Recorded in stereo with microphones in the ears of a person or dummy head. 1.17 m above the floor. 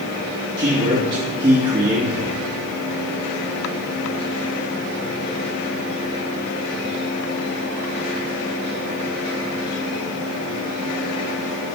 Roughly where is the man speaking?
Right.